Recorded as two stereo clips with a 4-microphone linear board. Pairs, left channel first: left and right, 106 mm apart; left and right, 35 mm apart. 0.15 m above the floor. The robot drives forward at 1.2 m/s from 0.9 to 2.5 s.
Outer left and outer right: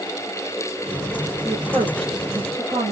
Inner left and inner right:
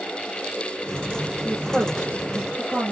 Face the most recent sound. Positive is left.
turn(degrees=-70)  # may be behind; listen again after turning